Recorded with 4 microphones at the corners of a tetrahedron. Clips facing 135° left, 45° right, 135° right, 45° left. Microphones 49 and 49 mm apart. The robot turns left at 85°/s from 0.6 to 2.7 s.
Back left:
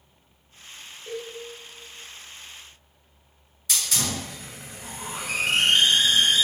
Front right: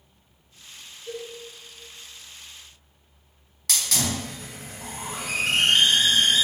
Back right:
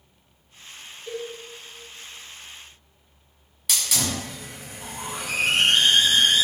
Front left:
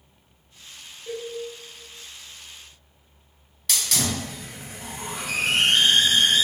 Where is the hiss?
55° right, 1.5 m.